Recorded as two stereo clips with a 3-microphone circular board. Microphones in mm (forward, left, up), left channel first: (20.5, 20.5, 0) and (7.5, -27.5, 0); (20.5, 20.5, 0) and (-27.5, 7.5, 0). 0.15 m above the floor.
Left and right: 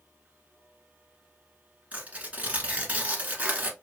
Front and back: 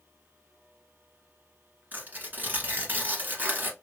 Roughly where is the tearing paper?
Behind right.